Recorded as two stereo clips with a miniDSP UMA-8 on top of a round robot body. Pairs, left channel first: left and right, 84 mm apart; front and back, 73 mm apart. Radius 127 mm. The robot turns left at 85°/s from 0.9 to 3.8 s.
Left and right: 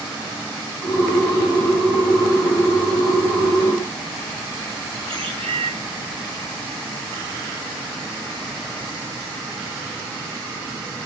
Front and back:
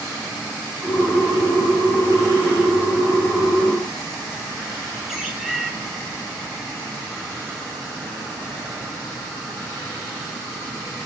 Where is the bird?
95° right, 4 m.